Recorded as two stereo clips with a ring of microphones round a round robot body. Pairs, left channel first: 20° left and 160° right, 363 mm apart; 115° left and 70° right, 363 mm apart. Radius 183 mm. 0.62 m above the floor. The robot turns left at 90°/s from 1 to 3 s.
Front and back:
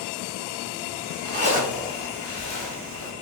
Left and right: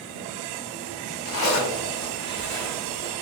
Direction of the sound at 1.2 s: 155° left.